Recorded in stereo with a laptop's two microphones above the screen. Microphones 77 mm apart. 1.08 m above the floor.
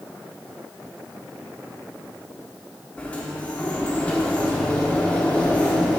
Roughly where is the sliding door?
Centre.